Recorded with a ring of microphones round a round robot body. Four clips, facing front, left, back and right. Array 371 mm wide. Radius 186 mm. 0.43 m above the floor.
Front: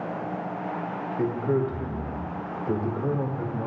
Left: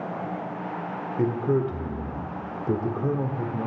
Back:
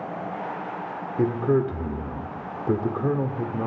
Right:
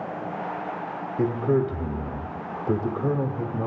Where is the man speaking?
165° left, 1.1 m.